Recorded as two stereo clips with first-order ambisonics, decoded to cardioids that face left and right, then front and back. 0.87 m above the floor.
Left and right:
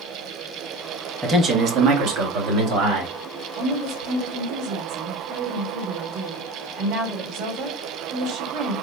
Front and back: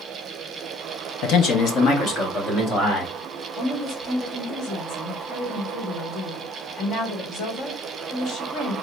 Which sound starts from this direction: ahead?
A man speaking, at 1.2 s.